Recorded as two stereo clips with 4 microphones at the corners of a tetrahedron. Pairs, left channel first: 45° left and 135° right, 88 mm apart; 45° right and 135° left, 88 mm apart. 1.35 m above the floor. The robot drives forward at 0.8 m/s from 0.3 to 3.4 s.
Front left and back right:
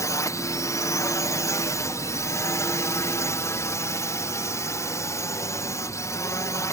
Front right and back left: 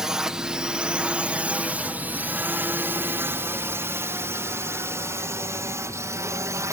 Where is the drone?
55° left; by 6.7 s 90° left.